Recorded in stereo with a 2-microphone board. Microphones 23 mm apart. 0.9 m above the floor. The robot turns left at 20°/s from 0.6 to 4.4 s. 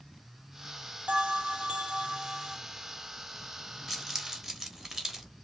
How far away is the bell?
About 1.2 m.